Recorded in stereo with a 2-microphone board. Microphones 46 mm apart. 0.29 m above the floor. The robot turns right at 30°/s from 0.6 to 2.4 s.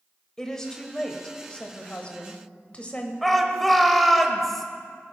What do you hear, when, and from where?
0.4 s a woman speaking: 10° left (ahead or behind), 0.9 m; by 3.1 s 25° left (ahead or behind), 0.9 m
3.2 s a shout: 5° left (ahead or behind), 0.9 m